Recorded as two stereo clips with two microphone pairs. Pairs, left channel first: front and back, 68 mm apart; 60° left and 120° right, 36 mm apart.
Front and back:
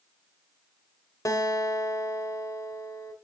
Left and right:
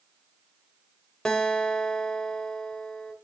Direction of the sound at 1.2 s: 5° right.